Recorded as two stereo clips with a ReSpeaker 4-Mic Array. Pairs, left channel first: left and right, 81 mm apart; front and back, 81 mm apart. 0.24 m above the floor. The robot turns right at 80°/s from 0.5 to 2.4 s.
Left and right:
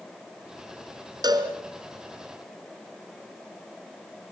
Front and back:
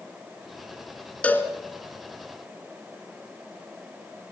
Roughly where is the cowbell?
Right.